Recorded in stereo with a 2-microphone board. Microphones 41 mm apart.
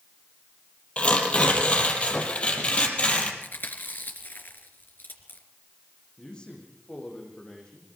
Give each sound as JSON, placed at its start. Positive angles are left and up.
{"t": 1.0, "sound": "tearing paper", "side_deg": 35, "distance_m": 4.5}
{"t": 3.4, "sound": "chewing", "side_deg": 60, "distance_m": 3.0}
{"t": 6.2, "sound": "a man speaking", "side_deg": 25, "distance_m": 8.5}